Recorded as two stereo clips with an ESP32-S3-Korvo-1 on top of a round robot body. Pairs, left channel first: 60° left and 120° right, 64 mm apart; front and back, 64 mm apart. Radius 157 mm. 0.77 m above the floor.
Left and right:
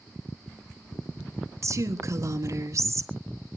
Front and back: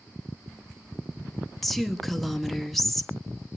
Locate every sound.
1.6 s a woman speaking: 85° right, 1.6 m